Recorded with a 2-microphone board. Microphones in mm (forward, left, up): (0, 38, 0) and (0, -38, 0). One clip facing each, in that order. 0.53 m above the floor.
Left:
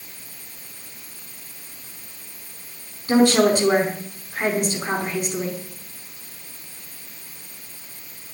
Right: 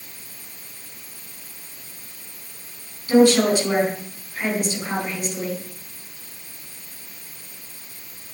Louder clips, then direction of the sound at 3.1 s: Right 1 dB; 35° left (ahead or behind).